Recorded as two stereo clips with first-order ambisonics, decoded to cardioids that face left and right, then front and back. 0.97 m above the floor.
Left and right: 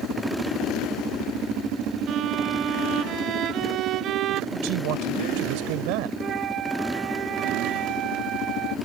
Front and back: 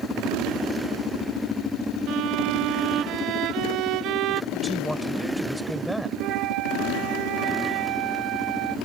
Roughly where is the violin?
Behind right.